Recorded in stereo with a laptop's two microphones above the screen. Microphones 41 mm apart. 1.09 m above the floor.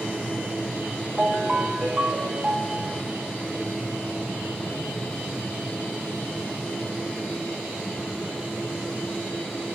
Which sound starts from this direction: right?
A ringtone, at 1.2 s.